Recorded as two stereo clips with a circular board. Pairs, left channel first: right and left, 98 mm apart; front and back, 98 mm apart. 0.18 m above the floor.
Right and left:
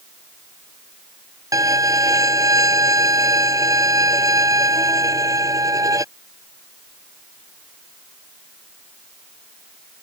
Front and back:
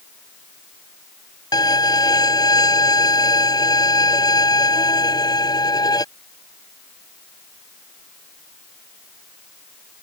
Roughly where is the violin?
Ahead left.